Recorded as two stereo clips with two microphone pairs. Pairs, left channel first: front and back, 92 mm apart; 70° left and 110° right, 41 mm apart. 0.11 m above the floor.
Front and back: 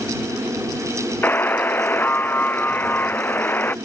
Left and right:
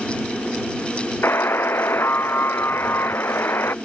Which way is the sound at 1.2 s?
70° left.